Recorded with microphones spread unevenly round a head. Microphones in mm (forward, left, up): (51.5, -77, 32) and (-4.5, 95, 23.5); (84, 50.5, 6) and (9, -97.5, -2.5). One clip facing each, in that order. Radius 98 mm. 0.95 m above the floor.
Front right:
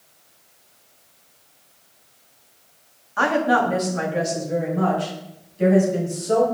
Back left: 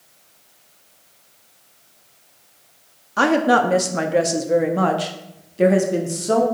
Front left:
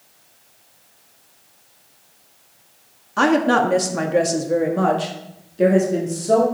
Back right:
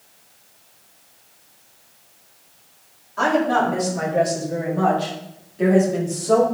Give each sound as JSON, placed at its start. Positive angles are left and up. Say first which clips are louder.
{"t": 3.2, "sound": "a woman speaking", "louder": "back left 3 dB, front left 3 dB", "azimuth_deg": 65, "distance_m": 1.7}